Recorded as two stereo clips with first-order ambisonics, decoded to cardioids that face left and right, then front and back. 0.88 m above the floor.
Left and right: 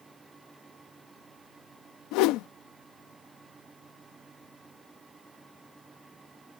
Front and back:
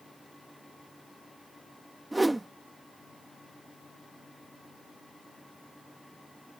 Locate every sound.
2.1 s a whoosh: 95° left